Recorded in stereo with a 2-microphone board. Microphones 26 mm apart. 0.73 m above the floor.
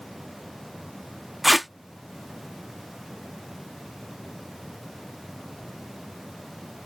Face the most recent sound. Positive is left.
turn(degrees=-5)  # may be behind; listen again after turning